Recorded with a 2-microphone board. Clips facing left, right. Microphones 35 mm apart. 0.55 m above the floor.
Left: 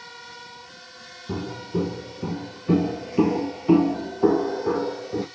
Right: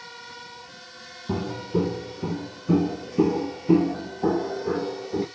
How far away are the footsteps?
About 0.9 m.